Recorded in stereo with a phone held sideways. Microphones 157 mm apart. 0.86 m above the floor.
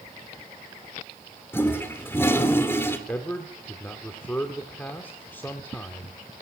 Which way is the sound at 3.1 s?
15° left (ahead or behind).